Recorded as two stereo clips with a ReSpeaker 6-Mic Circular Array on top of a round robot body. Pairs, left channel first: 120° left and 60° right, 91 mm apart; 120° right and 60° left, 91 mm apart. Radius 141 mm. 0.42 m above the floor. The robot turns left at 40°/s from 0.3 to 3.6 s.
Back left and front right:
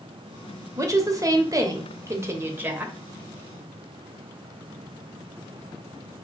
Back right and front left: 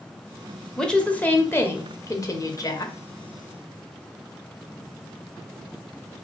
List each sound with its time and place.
0.8 s a woman speaking: 40° right, 1.0 m; by 2.9 s 125° right, 1.0 m